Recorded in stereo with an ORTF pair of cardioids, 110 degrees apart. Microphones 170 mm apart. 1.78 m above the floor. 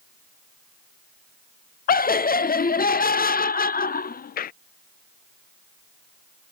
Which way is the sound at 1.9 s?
60° left.